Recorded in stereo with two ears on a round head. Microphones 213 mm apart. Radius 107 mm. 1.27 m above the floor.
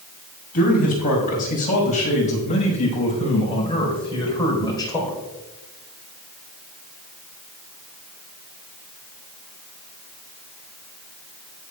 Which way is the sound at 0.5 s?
35° left (ahead or behind).